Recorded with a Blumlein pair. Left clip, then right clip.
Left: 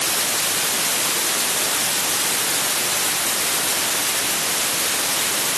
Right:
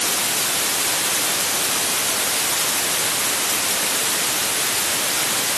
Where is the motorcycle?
No motorcycle in this recording.